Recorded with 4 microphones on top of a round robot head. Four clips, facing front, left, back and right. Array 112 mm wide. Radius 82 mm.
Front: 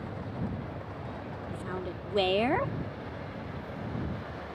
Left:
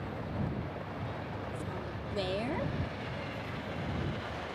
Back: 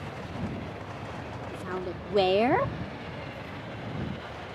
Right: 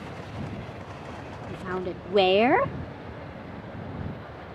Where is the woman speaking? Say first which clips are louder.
Right 8 dB, back 3 dB; 105° right.